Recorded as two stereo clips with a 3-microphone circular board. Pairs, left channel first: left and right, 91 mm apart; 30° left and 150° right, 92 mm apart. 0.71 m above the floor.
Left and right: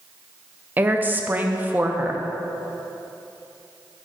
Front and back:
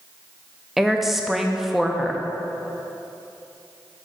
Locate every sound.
0.8 s a woman speaking: 65° right, 0.5 m